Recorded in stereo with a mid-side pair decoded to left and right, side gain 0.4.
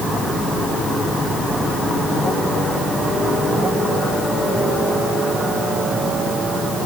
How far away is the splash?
No splash in this recording.